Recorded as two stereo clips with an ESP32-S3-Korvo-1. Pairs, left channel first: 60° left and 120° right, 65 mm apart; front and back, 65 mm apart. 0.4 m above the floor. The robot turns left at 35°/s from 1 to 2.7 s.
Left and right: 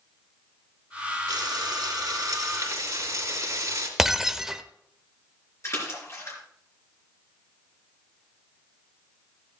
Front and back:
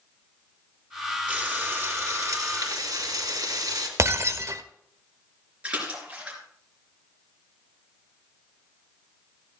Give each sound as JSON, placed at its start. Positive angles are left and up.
{"t": 1.3, "sound": "frying", "azimuth_deg": -110, "distance_m": 2.5}
{"t": 4.0, "sound": "breaking glass", "azimuth_deg": 160, "distance_m": 0.5}
{"t": 5.6, "sound": "a splash", "azimuth_deg": 110, "distance_m": 3.5}